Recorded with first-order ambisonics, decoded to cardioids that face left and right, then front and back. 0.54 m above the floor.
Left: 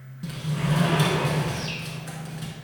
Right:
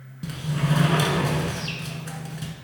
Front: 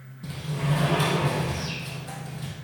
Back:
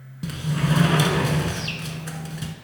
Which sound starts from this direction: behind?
A sliding door, at 0.2 s.